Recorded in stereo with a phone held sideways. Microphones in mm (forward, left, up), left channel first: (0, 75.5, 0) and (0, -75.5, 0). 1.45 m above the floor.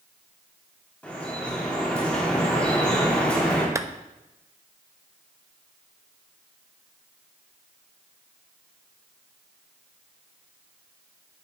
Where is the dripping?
5° left (ahead or behind), 3.5 m.